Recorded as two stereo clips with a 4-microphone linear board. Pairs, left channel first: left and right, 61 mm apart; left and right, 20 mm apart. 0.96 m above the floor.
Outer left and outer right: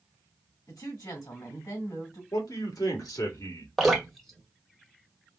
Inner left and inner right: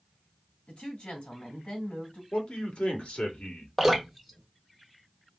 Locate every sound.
0.7 s a woman speaking: 70° left (ahead or behind), 2 m
2.3 s a man speaking: 75° left (ahead or behind), 1.8 m
3.8 s dripping: centre (ahead or behind), 1.1 m